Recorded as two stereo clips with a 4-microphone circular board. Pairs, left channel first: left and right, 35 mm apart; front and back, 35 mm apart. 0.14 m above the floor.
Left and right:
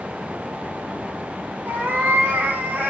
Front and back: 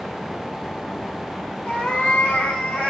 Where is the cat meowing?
60° right, 4 m; by 2.9 s 55° right, 5 m.